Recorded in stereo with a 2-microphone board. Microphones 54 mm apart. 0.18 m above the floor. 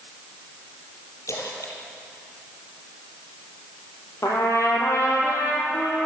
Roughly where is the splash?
Left.